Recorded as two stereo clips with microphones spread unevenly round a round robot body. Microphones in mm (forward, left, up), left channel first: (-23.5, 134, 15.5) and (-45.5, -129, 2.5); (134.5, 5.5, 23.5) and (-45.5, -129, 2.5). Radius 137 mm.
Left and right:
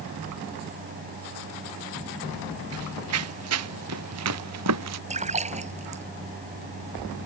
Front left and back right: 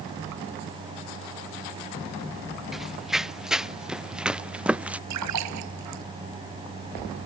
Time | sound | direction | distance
2.7 | running footsteps | 55° right | ?
5.1 | a splash | 160° right | ?